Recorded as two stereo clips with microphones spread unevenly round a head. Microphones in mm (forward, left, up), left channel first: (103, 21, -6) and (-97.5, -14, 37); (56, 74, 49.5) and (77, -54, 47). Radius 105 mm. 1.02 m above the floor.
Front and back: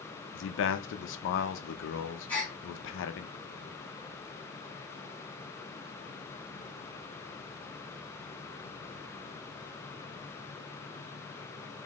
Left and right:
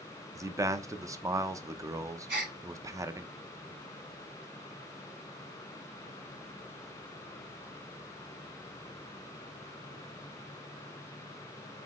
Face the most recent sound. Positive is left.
turn(degrees=-75)